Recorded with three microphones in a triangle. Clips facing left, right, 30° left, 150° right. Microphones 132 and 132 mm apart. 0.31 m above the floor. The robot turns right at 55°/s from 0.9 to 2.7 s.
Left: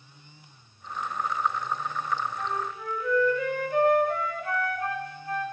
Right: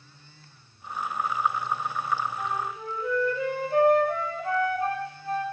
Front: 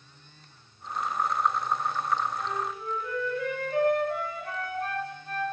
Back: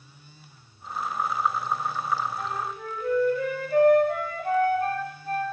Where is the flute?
165° right, 0.6 m; by 5.5 s 150° right, 0.6 m.